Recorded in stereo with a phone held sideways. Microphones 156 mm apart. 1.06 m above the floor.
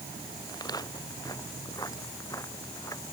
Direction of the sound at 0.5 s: 25° left (ahead or behind).